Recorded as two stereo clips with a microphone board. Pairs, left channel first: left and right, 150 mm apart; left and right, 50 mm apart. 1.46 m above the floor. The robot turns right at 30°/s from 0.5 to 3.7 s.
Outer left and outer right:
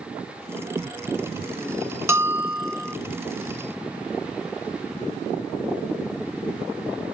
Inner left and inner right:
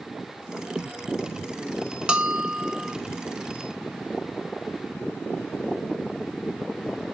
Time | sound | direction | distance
2.1 | a bell | 15° right (ahead or behind) | 0.8 m